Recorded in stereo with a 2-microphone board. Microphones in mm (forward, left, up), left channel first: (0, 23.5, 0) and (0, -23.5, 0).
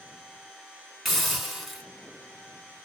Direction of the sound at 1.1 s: 5° right (ahead or behind).